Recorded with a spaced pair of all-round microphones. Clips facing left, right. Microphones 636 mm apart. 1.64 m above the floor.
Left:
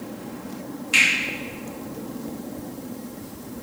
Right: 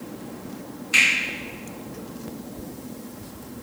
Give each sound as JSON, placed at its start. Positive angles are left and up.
{"t": 0.9, "sound": "a finger snap", "side_deg": 55, "distance_m": 1.4}